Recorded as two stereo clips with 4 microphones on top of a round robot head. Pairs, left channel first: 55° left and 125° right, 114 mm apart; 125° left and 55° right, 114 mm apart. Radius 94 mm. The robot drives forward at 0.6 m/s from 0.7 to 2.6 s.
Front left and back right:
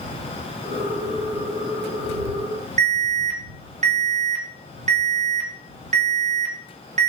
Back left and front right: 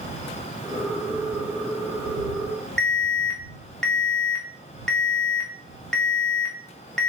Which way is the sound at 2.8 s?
150° right.